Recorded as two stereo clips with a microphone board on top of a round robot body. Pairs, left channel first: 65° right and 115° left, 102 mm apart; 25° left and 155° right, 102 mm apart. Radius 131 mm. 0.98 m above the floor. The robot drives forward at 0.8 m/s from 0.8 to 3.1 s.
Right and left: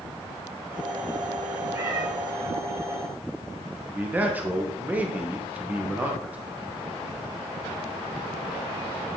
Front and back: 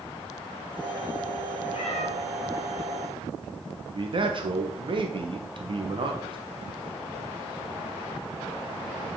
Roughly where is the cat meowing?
Ahead left.